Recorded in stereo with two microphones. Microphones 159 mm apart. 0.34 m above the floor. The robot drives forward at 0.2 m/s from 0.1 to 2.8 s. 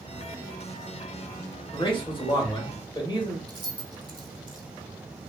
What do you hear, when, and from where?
1.7 s a man speaking: 30° left (ahead or behind), 1.0 m
3.5 s keys jangling: 25° right (ahead or behind), 0.7 m